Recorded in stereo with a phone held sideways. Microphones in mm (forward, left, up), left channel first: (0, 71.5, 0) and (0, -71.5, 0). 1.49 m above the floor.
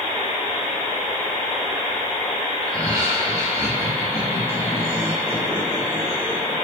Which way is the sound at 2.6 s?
30° right (ahead or behind).